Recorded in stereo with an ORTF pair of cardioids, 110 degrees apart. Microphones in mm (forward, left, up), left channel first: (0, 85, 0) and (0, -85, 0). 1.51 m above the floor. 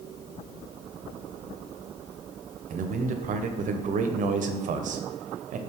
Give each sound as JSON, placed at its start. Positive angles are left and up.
{"t": 2.7, "sound": "a man speaking", "azimuth_deg": -50, "distance_m": 0.6}